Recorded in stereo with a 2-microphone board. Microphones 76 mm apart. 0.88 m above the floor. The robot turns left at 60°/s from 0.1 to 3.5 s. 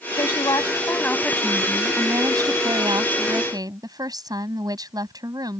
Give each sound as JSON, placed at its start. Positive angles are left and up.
{"t": 0.2, "sound": "a woman speaking", "azimuth_deg": 80}